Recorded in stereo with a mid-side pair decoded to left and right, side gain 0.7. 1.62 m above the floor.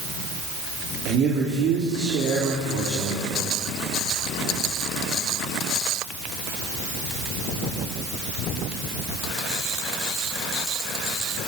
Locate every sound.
1.1 s a man speaking: 50° right, 4 m